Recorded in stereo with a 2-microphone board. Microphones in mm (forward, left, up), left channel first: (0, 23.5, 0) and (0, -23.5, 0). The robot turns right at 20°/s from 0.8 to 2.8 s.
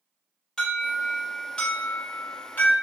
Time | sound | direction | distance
0.6 | an alarm | 15° left | 1.6 m